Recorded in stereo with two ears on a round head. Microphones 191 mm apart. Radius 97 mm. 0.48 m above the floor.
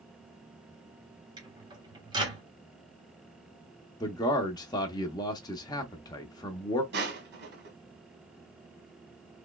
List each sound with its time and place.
1.4 s a microwave: 20° right (ahead or behind), 1.2 m
4.0 s a man speaking: 20° left (ahead or behind), 0.7 m
6.9 s crushing: 55° right (ahead or behind), 1.7 m